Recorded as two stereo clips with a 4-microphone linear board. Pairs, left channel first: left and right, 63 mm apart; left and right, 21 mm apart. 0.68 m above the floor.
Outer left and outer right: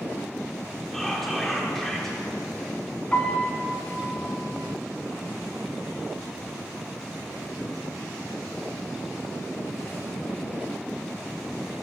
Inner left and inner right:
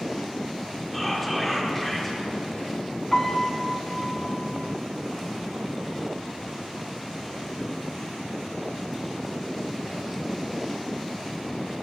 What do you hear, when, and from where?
0.9 s whispering: 5° left (ahead or behind), 1.4 m
3.1 s a piano: 25° left (ahead or behind), 1.1 m